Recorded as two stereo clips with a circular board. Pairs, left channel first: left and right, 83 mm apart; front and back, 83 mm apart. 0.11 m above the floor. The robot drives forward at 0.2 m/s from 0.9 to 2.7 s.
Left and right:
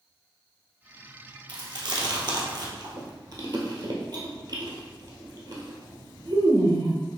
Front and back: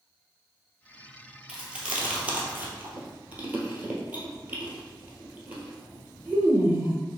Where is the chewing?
100° right, 1.1 m; by 7.0 s 115° right, 1.1 m.